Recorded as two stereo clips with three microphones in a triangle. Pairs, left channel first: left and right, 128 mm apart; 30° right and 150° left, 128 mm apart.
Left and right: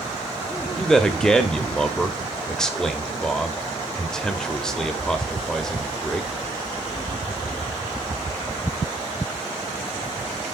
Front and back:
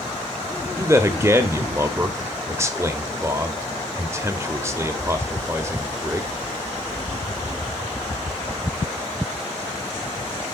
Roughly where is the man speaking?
Behind.